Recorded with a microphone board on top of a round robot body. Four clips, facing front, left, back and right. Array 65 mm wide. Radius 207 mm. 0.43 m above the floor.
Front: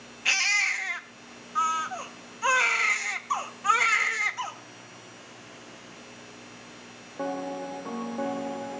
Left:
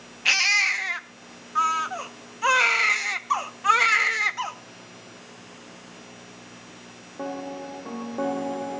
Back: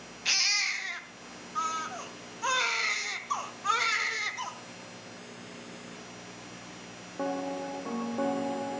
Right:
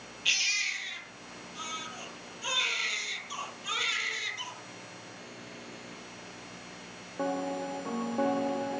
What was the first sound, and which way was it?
A baby crying, 75° left.